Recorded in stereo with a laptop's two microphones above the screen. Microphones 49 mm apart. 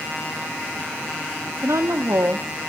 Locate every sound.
1.6 s a woman speaking: 75° right (ahead or behind), 1.3 m